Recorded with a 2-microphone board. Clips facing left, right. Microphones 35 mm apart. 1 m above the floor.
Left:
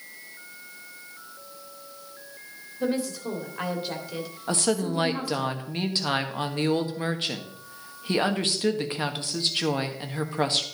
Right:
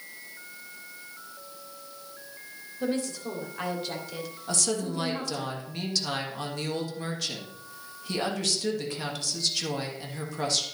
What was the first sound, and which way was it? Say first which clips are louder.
A woman speaking: left 2 dB; 5° left (ahead or behind).